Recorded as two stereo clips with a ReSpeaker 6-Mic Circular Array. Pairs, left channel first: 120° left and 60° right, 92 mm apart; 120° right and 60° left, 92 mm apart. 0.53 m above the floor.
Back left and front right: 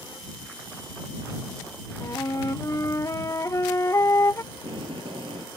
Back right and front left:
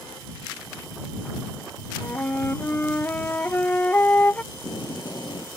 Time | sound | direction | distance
2.0 | a flute | 175° left | ?
4.5 | tape being pulled | 75° right | ?